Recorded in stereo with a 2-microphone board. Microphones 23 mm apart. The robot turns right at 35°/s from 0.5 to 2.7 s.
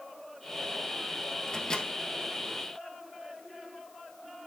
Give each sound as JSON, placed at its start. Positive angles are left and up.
{"t": 1.5, "sound": "a microwave", "side_deg": 25, "distance_m": 1.4}